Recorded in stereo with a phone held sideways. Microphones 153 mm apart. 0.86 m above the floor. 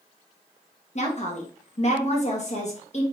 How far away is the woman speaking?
About 1.1 m.